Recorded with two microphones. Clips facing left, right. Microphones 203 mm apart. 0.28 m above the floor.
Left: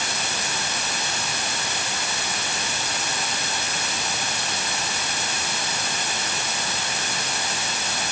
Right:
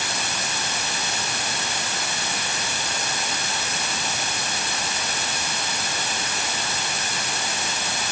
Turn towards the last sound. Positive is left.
No sound to turn to.